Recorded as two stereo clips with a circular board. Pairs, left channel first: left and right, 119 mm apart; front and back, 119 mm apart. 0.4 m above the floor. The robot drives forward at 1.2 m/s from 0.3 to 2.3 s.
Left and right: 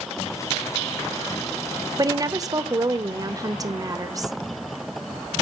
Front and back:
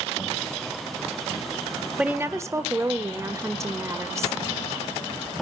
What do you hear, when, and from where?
2.0 s a woman speaking: 105° right, 1.3 m; by 4.4 s 130° right, 1.4 m